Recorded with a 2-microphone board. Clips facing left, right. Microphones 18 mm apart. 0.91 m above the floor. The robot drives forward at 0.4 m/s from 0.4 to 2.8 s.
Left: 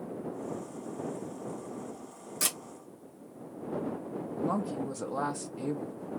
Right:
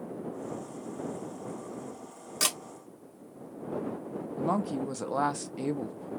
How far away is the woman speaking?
About 0.7 m.